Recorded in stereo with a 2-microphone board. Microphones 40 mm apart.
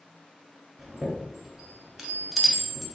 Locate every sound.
0.8 s a chime: 10° right (ahead or behind), 1.2 m